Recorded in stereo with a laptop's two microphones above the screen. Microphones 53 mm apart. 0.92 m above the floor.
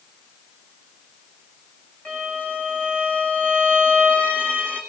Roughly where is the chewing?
No chewing in this recording.